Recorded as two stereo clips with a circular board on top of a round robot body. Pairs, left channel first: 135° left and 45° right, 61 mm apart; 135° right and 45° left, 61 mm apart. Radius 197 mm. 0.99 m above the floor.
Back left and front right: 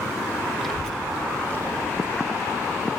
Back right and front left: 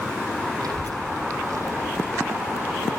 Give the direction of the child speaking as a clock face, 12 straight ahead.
11 o'clock.